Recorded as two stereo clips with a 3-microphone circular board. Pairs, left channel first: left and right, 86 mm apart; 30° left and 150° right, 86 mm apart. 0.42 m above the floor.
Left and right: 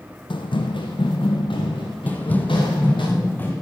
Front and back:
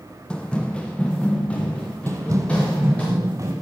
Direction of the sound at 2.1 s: 160° left.